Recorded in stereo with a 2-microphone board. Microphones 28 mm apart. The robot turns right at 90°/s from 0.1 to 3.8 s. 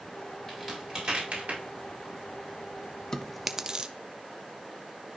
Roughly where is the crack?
Centre.